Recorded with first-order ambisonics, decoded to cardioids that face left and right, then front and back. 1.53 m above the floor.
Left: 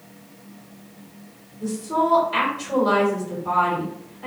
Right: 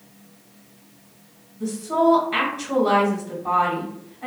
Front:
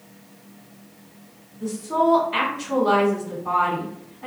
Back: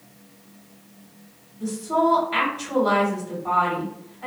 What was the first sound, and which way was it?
A woman speaking, 120° right.